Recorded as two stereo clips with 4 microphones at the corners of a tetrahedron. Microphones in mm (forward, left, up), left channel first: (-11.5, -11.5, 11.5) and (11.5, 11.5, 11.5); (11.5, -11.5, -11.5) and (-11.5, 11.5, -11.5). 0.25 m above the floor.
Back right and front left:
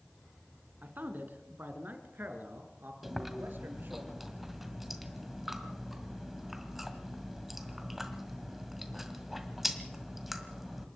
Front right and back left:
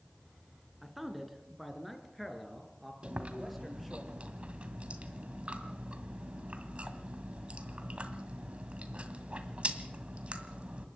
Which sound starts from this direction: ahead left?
A man speaking, at 0.8 s.